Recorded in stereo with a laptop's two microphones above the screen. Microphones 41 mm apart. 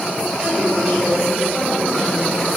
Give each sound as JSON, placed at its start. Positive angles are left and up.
{"t": 0.4, "sound": "a woman speaking", "side_deg": -20, "distance_m": 9.5}